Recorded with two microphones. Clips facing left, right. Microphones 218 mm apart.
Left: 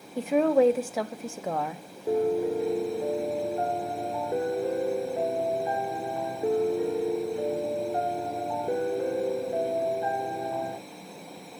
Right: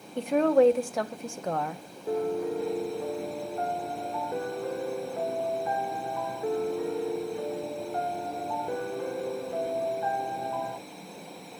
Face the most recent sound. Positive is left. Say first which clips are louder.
# left 4 dB
turn(degrees=25)  # may be behind; listen again after turning